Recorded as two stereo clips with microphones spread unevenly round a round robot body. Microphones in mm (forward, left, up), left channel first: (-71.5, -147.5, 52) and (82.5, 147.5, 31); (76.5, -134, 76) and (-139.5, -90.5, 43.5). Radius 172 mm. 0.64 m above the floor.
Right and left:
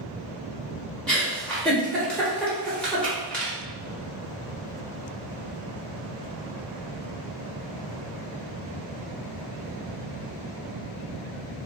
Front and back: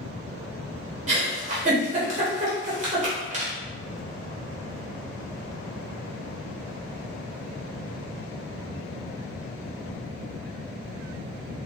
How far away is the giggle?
About 1.0 m.